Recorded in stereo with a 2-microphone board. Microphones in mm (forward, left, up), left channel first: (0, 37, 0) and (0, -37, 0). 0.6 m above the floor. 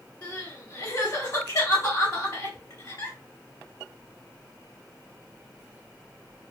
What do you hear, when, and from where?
0.2 s crying: 45° left (ahead or behind), 1.5 m